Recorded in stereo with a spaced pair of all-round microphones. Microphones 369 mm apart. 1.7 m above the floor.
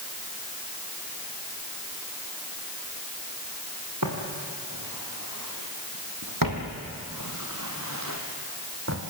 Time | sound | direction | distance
4.0 | footsteps | 55° right (ahead or behind) | 4 m